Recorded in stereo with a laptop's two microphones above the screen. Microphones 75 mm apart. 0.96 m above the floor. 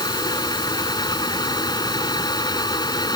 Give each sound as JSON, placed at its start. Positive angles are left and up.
{"t": 0.0, "sound": "a fan", "side_deg": 75}